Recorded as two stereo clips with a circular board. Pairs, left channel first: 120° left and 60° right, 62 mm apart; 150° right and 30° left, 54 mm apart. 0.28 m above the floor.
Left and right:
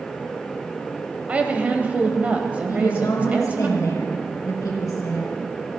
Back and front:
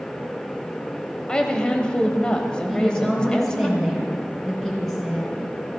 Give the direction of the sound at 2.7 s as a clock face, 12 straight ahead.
8 o'clock.